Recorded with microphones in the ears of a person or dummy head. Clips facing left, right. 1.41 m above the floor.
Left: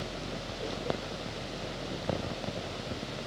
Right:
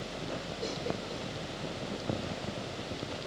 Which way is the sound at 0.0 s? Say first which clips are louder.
Even; 45° left (ahead or behind).